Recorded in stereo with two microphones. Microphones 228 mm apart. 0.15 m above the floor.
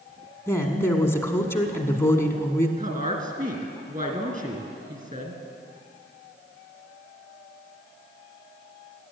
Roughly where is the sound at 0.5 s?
Centre.